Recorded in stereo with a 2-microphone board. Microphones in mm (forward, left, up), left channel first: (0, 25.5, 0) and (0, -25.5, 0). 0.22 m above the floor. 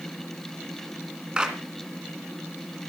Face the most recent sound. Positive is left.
turn(degrees=-15)  # may be behind; listen again after turning